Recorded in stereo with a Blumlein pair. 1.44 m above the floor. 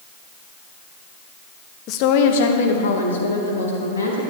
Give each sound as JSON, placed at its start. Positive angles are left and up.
{"t": 1.9, "sound": "a woman speaking", "azimuth_deg": 40, "distance_m": 1.0}